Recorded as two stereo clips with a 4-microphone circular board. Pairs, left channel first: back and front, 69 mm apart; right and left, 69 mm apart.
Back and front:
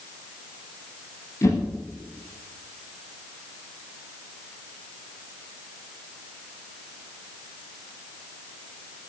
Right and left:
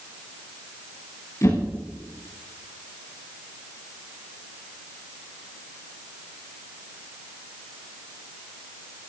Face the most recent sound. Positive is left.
turn(degrees=-135)